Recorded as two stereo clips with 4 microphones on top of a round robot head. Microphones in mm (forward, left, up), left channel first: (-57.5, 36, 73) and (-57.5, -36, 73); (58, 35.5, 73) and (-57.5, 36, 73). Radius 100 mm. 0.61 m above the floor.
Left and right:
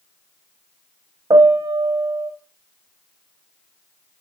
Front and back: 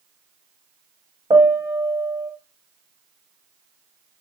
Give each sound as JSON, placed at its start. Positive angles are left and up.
{"t": 1.3, "sound": "a piano", "azimuth_deg": -115, "distance_m": 0.6}